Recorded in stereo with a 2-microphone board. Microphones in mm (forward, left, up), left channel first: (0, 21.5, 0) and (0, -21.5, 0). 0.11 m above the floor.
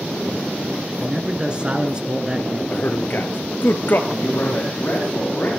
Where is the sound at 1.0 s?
20° right (ahead or behind), 1.4 m.